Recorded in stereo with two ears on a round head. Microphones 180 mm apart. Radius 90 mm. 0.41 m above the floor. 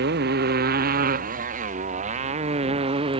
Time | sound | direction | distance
0.0 | a motorcycle | 55° right (ahead or behind) | ?